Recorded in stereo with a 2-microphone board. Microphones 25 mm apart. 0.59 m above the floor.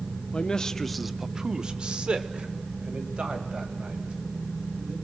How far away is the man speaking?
About 0.8 m.